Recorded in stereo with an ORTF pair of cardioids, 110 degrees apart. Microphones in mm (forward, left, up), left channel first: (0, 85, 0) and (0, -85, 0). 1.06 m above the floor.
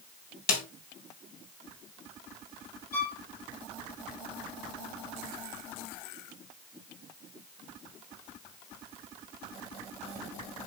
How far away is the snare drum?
About 2.5 m.